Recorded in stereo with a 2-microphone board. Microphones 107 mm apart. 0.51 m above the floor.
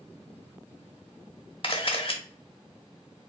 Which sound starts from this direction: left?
A camera shutter, at 1.6 s.